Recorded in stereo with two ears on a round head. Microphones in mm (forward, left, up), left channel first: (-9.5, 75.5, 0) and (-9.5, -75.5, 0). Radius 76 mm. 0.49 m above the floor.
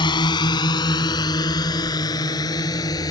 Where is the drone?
25° left (ahead or behind); by 3.1 s 20° left (ahead or behind).